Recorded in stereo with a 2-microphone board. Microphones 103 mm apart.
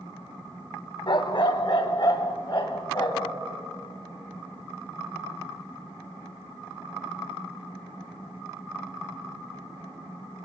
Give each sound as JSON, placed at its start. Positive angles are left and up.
{"t": 1.1, "sound": "a dog barking", "side_deg": 50, "distance_m": 0.8}